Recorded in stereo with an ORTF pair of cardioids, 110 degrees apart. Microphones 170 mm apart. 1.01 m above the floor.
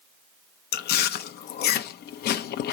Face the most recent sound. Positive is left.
turn(degrees=65)